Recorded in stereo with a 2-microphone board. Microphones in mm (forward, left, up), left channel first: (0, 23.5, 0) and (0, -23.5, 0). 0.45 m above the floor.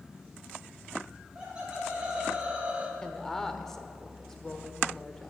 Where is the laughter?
15° right (ahead or behind), 1.8 m; by 2.9 s 20° right (ahead or behind), 0.9 m.